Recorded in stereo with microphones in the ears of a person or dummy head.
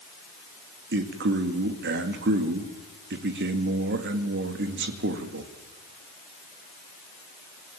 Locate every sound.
0.9 s a man speaking: 55° right (ahead or behind), 2.5 m